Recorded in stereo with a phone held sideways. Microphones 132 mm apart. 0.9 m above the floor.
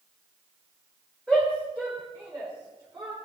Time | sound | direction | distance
1.3 | a shout | centre (ahead or behind) | 3.5 m